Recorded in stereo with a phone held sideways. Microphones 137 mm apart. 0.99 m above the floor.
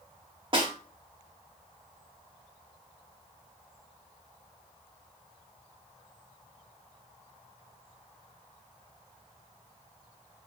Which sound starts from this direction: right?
A snare drum, at 0.5 s.